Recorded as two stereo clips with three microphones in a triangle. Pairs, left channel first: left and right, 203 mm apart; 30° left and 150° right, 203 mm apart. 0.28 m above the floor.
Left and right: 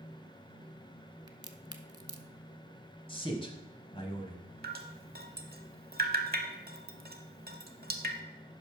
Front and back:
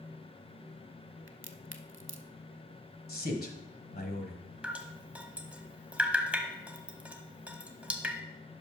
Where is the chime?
I don't hear a chime.